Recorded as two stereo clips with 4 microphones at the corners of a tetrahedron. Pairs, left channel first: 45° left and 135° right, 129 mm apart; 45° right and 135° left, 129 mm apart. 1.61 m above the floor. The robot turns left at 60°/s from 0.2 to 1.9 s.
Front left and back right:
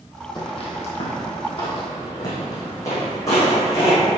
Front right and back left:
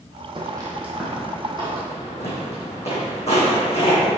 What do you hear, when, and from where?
0.3 s footsteps: 95° left, 3 m; by 4.0 s 20° right, 5.5 m